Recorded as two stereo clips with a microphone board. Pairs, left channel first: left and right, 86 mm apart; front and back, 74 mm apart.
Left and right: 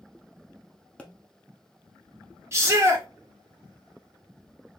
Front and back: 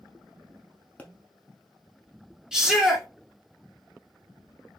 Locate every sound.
1.0 s a pop: 35° left, 0.8 m
2.5 s a shout: 105° right, 1.5 m